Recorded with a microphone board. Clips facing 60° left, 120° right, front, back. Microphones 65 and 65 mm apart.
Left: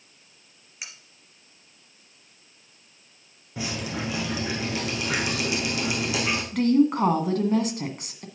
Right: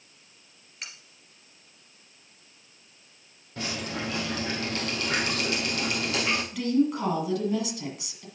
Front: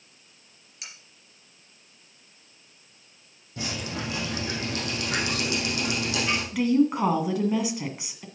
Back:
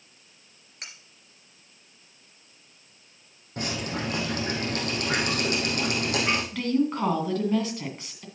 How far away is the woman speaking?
About 1.6 m.